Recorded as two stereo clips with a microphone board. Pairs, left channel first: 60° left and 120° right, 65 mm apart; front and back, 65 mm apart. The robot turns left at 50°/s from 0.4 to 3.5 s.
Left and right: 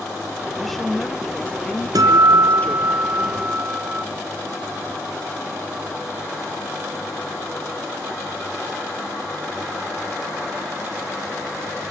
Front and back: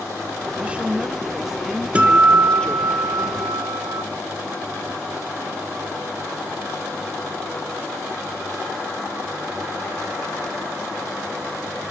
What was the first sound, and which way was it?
A woman speaking, 150° left.